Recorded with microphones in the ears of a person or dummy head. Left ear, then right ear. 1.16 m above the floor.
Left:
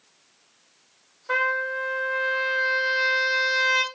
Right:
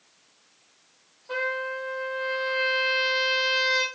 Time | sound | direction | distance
1.3 | a trumpet | 60° left (ahead or behind) | 2 m